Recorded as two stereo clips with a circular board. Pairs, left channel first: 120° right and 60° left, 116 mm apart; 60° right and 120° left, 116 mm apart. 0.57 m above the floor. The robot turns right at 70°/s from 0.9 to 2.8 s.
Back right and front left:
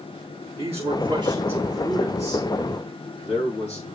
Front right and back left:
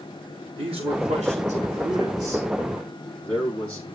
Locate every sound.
0.6 s a man speaking: 90° left, 7.5 m; by 3.9 s 140° right, 7.5 m